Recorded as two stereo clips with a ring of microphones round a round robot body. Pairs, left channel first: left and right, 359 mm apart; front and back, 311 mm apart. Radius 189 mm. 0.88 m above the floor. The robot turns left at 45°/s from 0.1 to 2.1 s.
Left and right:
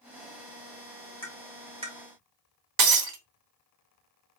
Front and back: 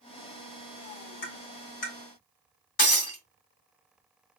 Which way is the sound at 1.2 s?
15° left.